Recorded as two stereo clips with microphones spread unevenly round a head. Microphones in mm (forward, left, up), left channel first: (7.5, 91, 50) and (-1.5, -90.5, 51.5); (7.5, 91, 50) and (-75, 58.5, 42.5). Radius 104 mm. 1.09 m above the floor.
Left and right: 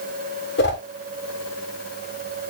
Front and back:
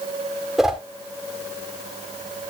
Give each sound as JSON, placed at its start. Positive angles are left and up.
{"t": 0.6, "sound": "a whoosh", "azimuth_deg": 115, "distance_m": 3.0}